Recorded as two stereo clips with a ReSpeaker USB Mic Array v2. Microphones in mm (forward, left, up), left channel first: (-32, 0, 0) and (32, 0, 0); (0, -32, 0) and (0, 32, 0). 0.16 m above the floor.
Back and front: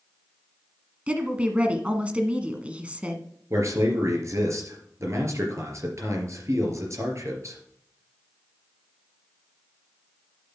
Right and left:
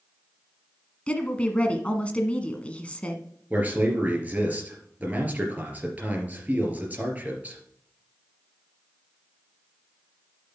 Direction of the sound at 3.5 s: 30° left.